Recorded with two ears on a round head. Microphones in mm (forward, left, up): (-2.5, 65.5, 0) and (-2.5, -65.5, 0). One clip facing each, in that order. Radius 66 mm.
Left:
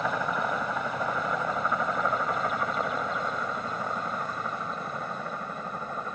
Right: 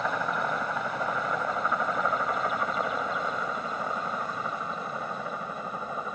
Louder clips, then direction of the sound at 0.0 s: Even; centre (ahead or behind).